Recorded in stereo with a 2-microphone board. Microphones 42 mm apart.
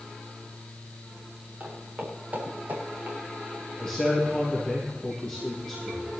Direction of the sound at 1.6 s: 45° right (ahead or behind).